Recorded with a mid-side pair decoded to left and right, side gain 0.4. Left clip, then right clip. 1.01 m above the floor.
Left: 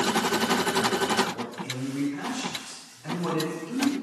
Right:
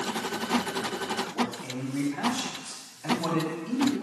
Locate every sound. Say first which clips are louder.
1.3 s a man speaking: right 3 dB; 70° right, 2.5 m